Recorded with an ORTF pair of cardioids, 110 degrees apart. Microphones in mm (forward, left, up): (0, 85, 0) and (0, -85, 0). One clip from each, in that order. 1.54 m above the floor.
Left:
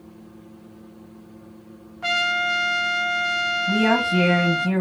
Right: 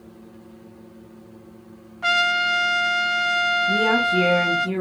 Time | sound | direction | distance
2.0 | a trumpet | 10° right | 0.5 m
3.7 | a woman speaking | 65° left | 1.4 m